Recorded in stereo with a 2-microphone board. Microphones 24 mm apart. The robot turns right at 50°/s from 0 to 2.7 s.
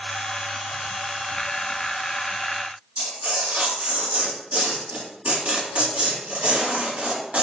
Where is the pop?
I don't hear a pop.